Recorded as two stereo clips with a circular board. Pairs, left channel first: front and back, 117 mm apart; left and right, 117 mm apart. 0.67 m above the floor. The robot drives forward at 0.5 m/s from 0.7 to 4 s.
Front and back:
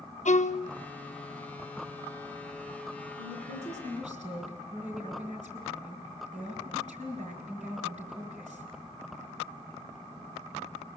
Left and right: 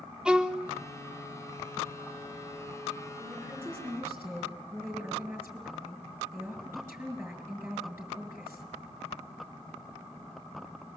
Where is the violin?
5° right, 0.7 m.